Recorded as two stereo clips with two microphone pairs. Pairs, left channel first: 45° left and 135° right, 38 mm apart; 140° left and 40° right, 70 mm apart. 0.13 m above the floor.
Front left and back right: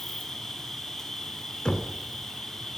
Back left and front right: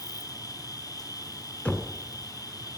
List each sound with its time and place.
0.0 s an insect: 130° left, 1.1 m
1.6 s knocking: 95° left, 1.0 m